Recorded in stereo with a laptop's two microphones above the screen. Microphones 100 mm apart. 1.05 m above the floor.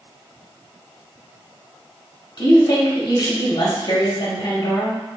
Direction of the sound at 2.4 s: 50° left (ahead or behind).